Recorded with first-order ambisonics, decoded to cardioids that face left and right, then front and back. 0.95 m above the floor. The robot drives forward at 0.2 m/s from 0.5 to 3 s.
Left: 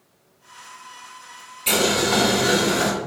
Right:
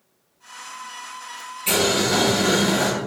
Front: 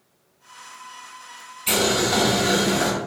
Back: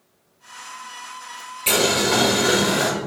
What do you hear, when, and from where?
1.7 s boiling: 170° left, 1.0 m